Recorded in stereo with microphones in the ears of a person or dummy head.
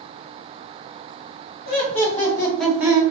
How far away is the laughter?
About 1.6 m.